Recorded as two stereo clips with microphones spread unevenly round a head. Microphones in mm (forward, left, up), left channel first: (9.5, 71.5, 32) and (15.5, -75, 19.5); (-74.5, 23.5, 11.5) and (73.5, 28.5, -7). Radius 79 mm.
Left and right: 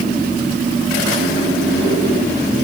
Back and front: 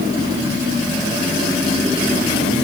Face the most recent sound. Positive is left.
No sound to turn to.